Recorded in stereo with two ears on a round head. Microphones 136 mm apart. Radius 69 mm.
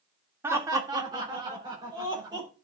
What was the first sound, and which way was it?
Laughter, 15° right (ahead or behind).